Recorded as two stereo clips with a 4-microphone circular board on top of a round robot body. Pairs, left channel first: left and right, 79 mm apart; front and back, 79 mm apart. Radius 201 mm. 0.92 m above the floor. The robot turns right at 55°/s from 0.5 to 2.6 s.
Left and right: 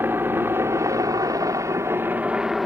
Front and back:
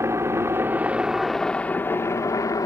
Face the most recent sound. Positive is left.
turn(degrees=-5)